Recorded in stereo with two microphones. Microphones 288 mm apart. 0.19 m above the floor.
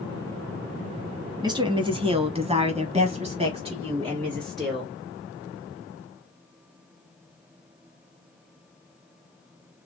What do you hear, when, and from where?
1.4 s a woman speaking: 15° right (ahead or behind), 1.6 m